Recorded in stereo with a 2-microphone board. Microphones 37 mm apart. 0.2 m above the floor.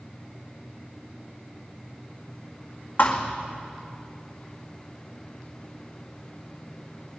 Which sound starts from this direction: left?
A thud, at 3.0 s.